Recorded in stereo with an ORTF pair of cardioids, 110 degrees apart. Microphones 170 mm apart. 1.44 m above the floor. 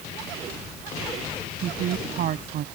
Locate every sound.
1.6 s a woman speaking: 60° right